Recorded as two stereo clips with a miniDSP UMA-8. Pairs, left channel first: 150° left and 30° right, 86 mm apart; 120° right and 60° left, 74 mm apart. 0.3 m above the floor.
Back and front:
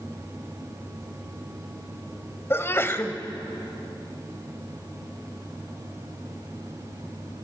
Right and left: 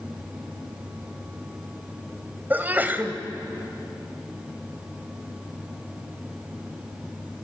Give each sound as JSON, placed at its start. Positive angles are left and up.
{"t": 2.5, "sound": "a sneeze", "azimuth_deg": 110, "distance_m": 1.5}